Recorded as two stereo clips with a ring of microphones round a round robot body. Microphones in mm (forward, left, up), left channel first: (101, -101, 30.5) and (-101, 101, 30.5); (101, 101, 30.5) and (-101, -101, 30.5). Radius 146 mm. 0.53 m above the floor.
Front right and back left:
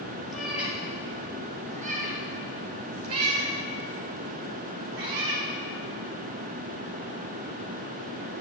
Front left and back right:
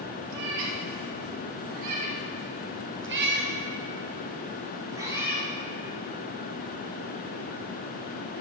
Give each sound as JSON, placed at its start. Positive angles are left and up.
{"t": 0.3, "sound": "a cat meowing", "azimuth_deg": -135, "distance_m": 2.5}